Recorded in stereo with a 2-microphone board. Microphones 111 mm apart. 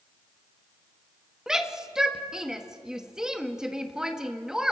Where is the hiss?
I don't hear a hiss.